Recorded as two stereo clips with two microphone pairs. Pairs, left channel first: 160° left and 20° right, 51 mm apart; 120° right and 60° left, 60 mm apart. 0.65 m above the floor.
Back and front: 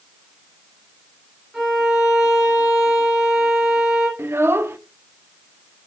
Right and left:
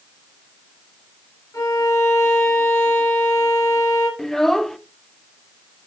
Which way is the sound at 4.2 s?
35° right.